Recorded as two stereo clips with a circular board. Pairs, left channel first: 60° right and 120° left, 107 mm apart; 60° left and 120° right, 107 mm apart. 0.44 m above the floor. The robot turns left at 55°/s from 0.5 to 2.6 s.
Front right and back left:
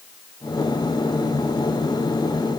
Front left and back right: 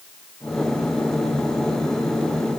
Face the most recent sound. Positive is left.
No sound to turn to.